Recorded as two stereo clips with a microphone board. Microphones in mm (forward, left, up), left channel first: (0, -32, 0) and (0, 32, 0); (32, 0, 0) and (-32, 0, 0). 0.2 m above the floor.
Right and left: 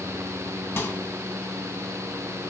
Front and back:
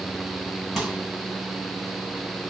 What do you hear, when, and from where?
0.8 s a microwave: 90° right, 1.5 m